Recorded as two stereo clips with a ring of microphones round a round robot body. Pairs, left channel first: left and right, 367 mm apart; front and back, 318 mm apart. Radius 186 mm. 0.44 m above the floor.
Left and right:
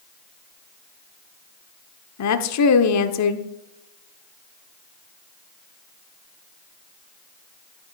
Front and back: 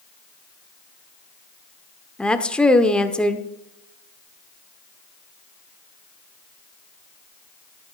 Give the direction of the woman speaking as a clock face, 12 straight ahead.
9 o'clock.